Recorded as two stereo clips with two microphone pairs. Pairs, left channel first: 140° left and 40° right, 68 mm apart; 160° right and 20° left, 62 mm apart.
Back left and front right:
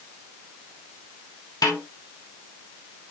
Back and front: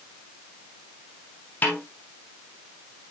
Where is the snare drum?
140° left, 3 m.